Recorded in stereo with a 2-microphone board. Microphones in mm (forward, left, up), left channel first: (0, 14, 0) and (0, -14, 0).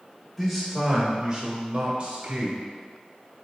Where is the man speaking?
5° left (ahead or behind), 1.0 m; by 2.6 s 45° right (ahead or behind), 1.5 m.